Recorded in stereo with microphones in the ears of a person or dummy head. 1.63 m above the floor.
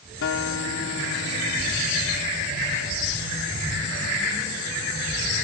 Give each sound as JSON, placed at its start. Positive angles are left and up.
{"t": 0.2, "sound": "a guitar", "side_deg": 80}